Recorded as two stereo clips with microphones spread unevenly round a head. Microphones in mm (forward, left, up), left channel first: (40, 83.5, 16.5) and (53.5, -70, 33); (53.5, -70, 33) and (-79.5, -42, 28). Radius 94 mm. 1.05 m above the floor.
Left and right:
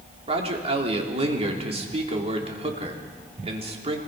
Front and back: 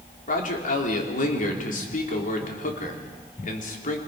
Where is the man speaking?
35° right, 3.5 m.